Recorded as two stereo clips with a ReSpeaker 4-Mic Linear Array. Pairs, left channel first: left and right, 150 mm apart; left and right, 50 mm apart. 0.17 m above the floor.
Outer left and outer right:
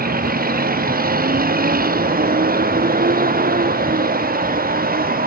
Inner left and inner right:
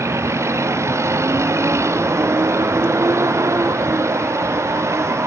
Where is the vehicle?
75° right (ahead or behind).